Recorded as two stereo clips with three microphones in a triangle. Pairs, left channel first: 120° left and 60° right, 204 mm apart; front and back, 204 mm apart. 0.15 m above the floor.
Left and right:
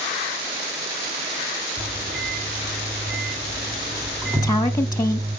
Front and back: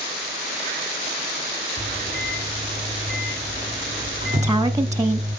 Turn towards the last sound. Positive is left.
turn(degrees=145)